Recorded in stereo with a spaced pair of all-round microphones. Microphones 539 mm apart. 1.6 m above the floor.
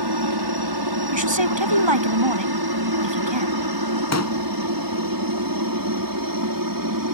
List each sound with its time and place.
0.0 s a helicopter: 50° right (ahead or behind); by 7.1 s 40° right (ahead or behind)
1.1 s a woman speaking: 60° right (ahead or behind)
4.1 s a pop: 30° left (ahead or behind)